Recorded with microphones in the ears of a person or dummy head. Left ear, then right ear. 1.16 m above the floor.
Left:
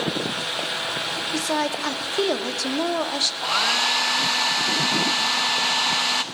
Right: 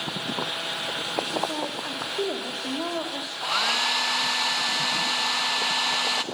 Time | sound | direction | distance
1.3 | a woman speaking | 75° left (ahead or behind) | 3 m
3.4 | a hair dryer | 5° right (ahead or behind) | 0.8 m